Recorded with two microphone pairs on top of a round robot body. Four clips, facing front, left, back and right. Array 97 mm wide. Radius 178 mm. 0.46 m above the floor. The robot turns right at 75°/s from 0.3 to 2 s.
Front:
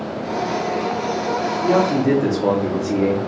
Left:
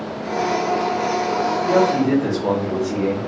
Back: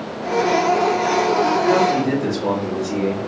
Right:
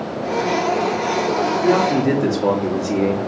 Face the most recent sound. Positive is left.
turn(degrees=-70)